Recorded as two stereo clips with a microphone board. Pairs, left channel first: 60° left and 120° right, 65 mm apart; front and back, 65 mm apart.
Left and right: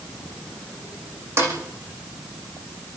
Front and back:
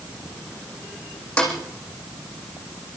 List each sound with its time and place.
1.4 s a snare drum: 75° right, 7 m